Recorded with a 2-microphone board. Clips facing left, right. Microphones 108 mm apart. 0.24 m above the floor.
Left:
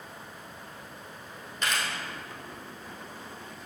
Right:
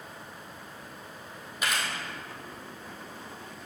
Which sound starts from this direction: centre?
A camera shutter, at 1.6 s.